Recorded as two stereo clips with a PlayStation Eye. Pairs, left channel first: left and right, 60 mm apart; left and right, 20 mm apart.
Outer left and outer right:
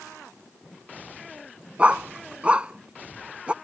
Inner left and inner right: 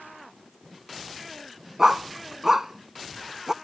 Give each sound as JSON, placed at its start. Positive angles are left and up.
{"t": 1.8, "sound": "a dog barking", "side_deg": -20}